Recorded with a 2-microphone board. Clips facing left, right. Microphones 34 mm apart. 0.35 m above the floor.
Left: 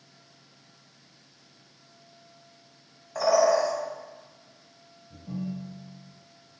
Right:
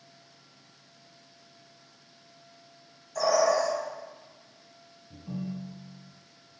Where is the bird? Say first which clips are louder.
Left 2 dB; 30° left (ahead or behind), 0.9 m.